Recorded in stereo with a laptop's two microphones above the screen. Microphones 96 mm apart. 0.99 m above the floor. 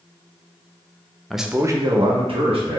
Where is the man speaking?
Centre (ahead or behind), 0.6 m; by 2.8 s 80° right, 1.2 m.